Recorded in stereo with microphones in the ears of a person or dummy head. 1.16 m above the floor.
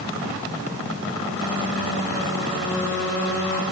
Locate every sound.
Only background noise.